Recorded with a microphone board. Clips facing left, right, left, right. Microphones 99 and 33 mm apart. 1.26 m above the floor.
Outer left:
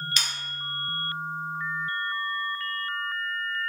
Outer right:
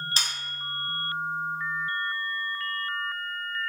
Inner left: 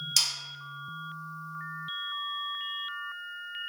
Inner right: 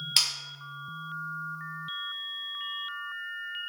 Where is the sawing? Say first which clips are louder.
Outer right 1 dB, inner right 2 dB; 35° right (ahead or behind), 0.7 m.